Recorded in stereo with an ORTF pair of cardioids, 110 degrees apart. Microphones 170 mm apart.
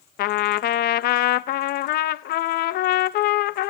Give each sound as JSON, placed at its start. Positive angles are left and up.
{"t": 0.2, "sound": "a trumpet", "azimuth_deg": 65, "distance_m": 0.6}